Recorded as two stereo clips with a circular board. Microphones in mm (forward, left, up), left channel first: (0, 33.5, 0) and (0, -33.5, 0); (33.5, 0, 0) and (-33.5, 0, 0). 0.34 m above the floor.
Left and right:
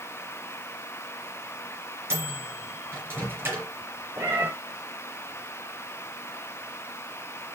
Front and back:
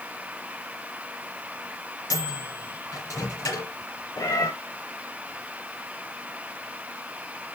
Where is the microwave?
35° right, 3.5 m.